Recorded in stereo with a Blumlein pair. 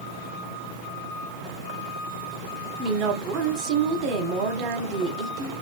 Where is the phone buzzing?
I don't hear a phone buzzing.